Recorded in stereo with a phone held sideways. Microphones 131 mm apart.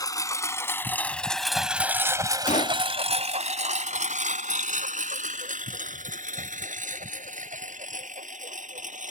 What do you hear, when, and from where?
0.0 s a lawn mower: 25° left (ahead or behind); by 9.1 s 70° right (ahead or behind)
2.5 s a gunshot: 65° left (ahead or behind)